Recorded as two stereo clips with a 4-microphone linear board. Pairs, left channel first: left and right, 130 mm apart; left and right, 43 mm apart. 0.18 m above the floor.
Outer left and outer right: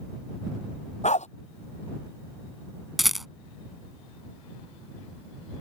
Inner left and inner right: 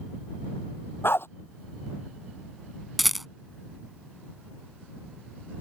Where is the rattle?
Centre (ahead or behind).